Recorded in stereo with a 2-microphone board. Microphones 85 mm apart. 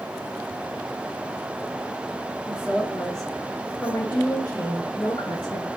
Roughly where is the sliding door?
I don't hear a sliding door.